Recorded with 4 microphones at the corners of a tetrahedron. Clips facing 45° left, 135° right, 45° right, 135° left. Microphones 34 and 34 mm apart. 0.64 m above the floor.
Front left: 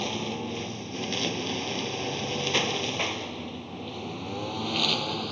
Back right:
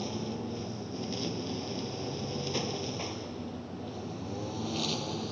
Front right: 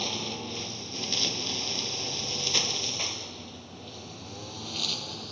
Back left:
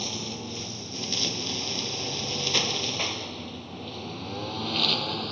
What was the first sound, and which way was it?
A lawn mower, 30° left.